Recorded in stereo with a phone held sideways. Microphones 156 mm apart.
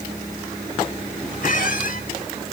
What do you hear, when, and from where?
1.4 s a squeak: 60° left (ahead or behind), 1.3 m